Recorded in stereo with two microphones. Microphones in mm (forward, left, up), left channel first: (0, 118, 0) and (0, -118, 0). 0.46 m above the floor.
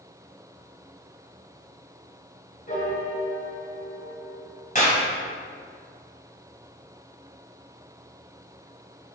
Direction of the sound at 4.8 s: 35° left (ahead or behind).